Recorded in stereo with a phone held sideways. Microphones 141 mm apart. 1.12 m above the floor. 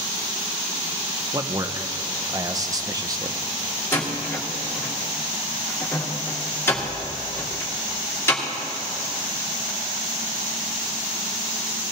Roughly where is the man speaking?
Right.